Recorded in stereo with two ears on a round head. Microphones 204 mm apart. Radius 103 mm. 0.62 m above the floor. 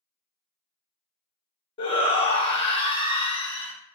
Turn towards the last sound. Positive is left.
turn(degrees=20)  # may be behind; listen again after turning